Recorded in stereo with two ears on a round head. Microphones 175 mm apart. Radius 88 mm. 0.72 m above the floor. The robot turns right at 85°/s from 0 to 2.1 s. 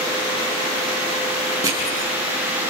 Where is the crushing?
15° right (ahead or behind), 6.5 m; by 2.1 s 55° right (ahead or behind), 6.5 m.